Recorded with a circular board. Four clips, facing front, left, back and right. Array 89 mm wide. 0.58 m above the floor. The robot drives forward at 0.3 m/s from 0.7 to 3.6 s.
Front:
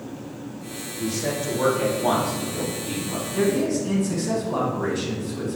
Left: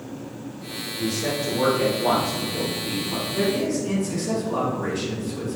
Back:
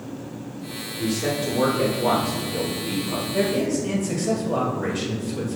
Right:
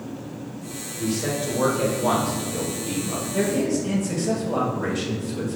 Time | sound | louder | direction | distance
1.0 | a man speaking | even, back 2 dB | 165° left | 1.8 m
3.3 | a man speaking | right 1 dB, front 1 dB | 155° right | 2.0 m